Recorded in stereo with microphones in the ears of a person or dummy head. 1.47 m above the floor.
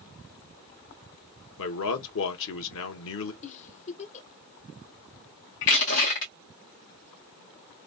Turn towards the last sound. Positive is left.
turn(degrees=60)  # may be behind; listen again after turning